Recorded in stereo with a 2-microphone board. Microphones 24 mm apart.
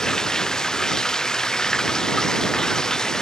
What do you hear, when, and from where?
0.0 s running water: 25° left (ahead or behind)